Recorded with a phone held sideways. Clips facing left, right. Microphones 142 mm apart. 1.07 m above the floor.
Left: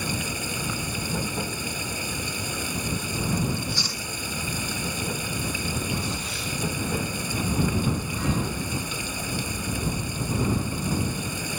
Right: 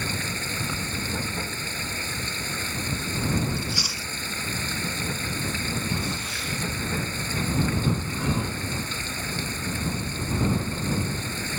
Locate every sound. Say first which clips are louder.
0.0 s running water: left 2 dB; 10° left (ahead or behind)
3.6 s chewing: even; 10° right (ahead or behind)